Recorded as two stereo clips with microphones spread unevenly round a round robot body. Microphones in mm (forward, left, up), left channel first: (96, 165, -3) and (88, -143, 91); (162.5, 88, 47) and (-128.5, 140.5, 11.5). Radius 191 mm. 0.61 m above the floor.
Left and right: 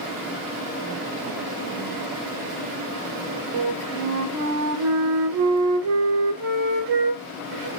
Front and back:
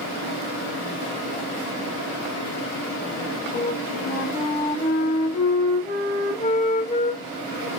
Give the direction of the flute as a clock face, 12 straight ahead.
3 o'clock.